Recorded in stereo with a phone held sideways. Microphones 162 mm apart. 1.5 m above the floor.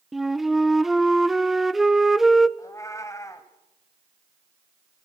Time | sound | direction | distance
0.1 | a flute | centre (ahead or behind) | 0.5 m
2.6 | a cat meowing | 20° left (ahead or behind) | 1.6 m